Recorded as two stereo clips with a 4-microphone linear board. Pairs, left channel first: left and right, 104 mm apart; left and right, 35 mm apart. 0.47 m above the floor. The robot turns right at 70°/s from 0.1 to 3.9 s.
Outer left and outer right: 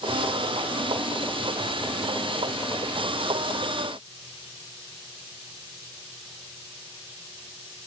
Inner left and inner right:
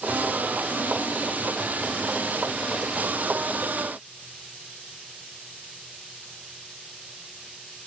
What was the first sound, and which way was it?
Only background noise.